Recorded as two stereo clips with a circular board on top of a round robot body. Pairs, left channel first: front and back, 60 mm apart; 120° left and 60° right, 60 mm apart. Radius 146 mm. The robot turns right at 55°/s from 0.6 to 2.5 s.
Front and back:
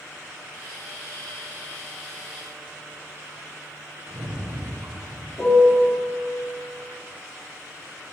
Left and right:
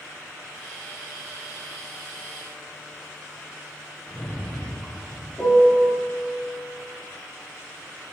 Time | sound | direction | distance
4.1 | a rattle | 155° right | 1.6 m
5.4 | a piano | 45° left | 2 m